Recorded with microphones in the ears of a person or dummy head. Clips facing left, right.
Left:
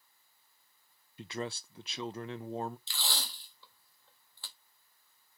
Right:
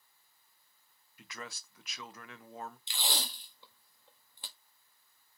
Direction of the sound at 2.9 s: 15° right (ahead or behind).